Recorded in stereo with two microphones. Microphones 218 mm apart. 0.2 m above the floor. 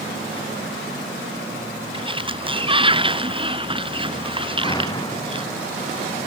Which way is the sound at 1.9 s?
25° right (ahead or behind).